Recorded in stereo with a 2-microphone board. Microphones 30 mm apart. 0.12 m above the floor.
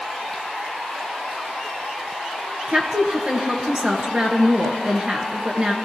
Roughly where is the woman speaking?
Right.